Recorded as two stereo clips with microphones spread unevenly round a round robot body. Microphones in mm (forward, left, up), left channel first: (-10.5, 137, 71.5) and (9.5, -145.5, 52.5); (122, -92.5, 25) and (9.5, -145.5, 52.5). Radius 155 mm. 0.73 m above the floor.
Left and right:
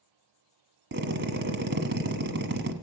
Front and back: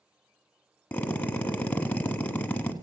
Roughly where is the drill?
Ahead right.